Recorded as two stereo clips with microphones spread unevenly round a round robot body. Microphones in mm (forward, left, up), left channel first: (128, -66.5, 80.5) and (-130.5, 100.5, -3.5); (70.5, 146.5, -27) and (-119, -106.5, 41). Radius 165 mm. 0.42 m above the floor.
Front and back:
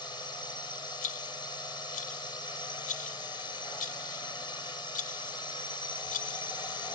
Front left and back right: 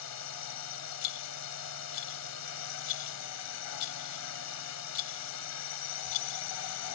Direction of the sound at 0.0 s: 50° left.